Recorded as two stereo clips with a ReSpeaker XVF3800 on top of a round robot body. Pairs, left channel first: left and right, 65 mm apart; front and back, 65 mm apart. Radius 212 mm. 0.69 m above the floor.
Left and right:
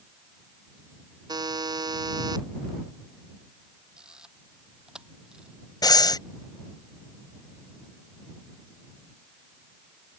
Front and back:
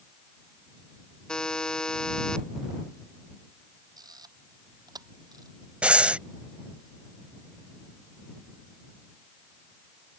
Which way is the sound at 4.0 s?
170° right.